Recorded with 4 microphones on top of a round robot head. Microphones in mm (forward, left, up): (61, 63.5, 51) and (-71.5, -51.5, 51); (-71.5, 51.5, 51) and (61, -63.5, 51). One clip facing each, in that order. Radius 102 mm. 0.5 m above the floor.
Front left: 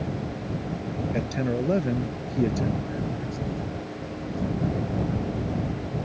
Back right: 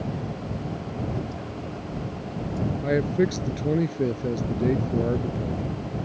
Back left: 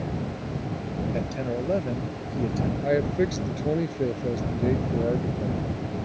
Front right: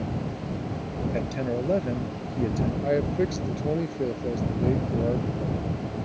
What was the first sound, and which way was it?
A man speaking, 40° left.